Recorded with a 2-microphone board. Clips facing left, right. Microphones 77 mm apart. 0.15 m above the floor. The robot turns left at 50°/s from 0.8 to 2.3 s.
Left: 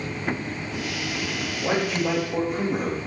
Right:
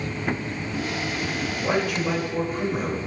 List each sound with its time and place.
1.6 s a man speaking: 165° left, 3.5 m; by 3.0 s 130° left, 3.5 m